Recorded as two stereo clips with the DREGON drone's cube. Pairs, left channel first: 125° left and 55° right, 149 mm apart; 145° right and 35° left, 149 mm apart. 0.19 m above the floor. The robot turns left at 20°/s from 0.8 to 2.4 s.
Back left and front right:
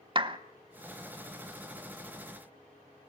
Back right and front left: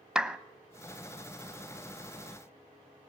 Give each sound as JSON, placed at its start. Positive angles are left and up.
{"t": 0.1, "sound": "a clap", "azimuth_deg": -45, "distance_m": 0.9}